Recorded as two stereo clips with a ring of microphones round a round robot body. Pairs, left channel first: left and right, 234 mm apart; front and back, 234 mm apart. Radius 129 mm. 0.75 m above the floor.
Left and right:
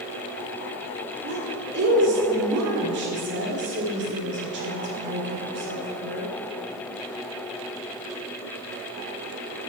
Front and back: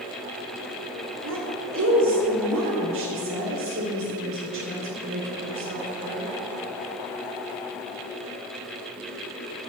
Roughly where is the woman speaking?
Behind right.